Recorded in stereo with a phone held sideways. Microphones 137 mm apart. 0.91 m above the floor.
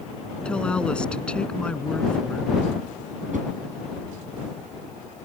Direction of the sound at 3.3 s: 65° right (ahead or behind).